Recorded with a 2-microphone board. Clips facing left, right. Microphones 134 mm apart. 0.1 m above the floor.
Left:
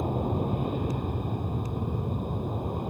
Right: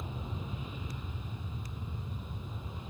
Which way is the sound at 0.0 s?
55° left (ahead or behind).